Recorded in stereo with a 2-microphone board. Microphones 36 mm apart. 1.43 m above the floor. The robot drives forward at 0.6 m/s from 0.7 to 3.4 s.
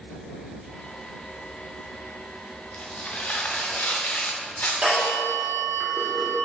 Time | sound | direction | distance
2.7 | tearing paper | 45° left (ahead or behind) | 1.0 m
4.8 | a phone ringing | 20° right (ahead or behind) | 1.9 m